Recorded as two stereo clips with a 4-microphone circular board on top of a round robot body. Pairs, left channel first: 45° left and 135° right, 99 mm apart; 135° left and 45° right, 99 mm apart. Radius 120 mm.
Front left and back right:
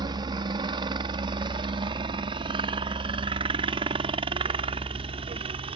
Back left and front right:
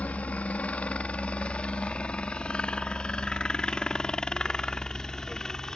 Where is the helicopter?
155° right; by 5.8 s 145° right.